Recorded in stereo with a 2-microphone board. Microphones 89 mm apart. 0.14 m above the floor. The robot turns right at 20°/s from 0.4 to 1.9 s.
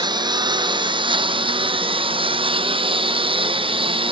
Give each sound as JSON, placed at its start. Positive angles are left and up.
{"t": 0.0, "sound": "a lawn mower", "azimuth_deg": -125}